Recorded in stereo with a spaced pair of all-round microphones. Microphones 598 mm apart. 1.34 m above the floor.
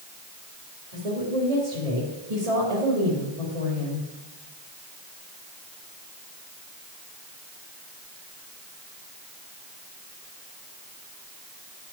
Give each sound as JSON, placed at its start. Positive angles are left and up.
{"t": 0.9, "sound": "a woman speaking", "side_deg": -75, "distance_m": 3.0}